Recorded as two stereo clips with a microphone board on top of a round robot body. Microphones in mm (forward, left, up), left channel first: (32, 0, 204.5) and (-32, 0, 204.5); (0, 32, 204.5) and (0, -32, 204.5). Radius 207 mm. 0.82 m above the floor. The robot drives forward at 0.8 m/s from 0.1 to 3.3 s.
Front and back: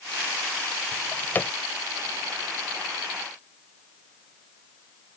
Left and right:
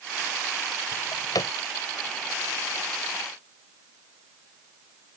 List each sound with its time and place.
0.9 s a drawer: 55° left; by 1.5 s 65° left